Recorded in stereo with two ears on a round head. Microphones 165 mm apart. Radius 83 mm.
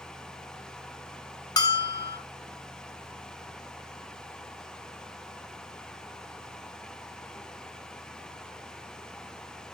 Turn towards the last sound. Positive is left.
turn(degrees=20)  # may be behind; listen again after turning